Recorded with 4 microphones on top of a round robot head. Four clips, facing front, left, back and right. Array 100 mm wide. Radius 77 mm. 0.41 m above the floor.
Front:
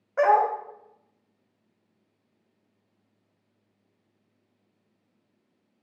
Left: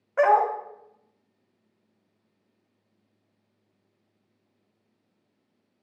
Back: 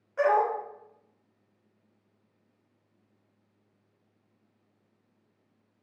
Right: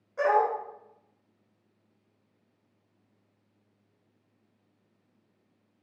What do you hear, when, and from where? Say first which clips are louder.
0.2 s a dog barking: left 4 dB, front 4 dB; 50° left, 0.8 m